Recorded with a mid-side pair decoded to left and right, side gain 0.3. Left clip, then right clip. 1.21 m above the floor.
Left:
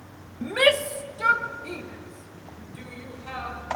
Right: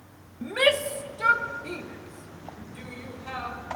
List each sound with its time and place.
0.4 s a shout: 35° left, 0.8 m; by 3.8 s 10° right, 5 m